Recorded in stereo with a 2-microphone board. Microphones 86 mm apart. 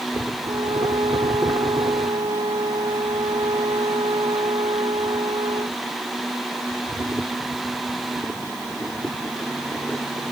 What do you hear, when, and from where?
0.4 s a violin: 75° right (ahead or behind)